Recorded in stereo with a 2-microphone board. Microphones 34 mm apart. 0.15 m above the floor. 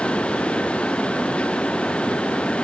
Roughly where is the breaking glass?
I don't hear breaking glass.